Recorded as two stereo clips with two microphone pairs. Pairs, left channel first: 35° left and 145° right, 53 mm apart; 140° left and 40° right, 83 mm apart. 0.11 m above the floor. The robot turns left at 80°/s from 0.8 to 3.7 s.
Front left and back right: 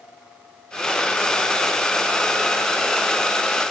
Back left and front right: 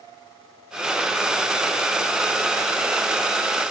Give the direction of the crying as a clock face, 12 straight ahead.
No crying in this recording.